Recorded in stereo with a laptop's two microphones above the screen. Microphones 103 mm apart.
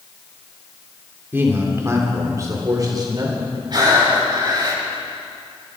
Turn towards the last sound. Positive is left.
turn(degrees=-45)  # may be behind; listen again after turning